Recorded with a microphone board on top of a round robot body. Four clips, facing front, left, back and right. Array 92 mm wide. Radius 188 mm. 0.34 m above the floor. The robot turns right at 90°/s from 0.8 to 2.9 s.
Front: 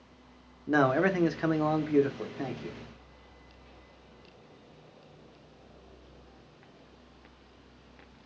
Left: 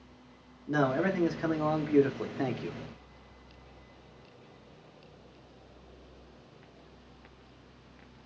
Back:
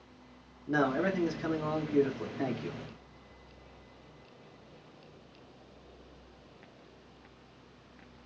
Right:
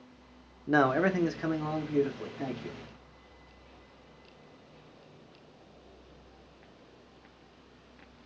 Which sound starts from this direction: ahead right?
A man speaking, at 0.7 s.